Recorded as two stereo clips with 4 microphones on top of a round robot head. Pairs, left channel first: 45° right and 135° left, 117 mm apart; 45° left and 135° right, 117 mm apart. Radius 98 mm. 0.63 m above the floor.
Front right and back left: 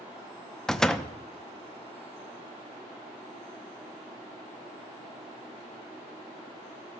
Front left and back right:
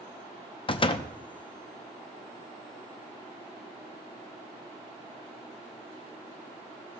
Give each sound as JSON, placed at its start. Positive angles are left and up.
{"t": 0.7, "sound": "a door slam", "azimuth_deg": 40, "distance_m": 0.8}